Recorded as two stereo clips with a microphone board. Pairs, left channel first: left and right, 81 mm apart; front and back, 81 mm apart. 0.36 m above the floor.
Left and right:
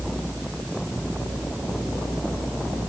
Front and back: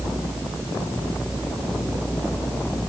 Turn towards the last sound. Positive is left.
No sound to turn to.